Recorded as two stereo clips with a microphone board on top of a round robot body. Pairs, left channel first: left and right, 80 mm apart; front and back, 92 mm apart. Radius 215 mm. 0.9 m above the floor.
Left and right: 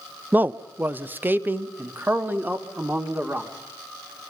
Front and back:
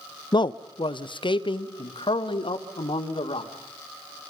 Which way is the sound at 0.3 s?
25° right.